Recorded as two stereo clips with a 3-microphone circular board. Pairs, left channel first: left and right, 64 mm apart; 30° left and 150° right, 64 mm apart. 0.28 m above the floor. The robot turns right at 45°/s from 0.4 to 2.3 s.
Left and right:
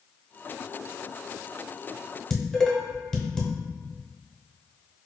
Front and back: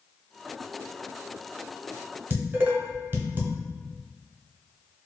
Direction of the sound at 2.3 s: 170° left.